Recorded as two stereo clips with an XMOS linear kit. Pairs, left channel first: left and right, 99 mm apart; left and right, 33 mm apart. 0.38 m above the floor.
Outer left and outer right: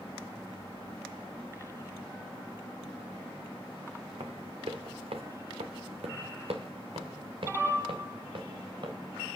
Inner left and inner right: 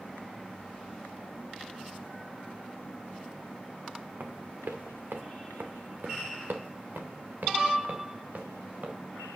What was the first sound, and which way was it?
Running footsteps, 65° right (ahead or behind).